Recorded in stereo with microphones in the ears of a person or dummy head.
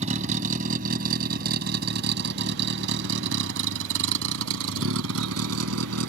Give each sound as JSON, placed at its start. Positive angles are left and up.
{"t": 0.0, "sound": "a vehicle", "side_deg": -35}